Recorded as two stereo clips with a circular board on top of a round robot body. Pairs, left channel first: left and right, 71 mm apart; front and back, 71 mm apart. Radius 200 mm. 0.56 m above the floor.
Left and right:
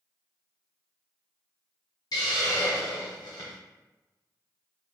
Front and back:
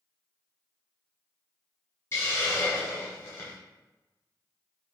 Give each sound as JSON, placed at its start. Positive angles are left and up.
{"t": 2.1, "sound": "a hiss", "azimuth_deg": 55, "distance_m": 0.5}